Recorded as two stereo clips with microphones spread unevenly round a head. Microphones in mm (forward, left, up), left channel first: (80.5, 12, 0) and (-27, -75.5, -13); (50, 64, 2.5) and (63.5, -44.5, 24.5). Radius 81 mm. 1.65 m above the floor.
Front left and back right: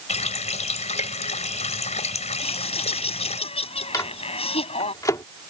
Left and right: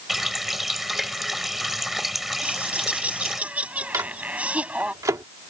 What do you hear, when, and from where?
0.1 s a running tap: straight ahead
2.4 s laughter: 5° right
3.9 s a microwave: 25° right